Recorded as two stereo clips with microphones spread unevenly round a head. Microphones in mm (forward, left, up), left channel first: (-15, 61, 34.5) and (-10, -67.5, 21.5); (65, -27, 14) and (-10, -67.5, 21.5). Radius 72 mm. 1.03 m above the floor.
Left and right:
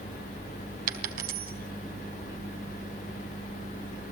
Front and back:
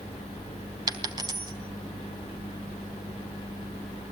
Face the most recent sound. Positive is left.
turn(degrees=-110)